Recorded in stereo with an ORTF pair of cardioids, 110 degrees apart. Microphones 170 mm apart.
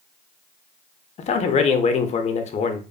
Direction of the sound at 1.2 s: 40° left.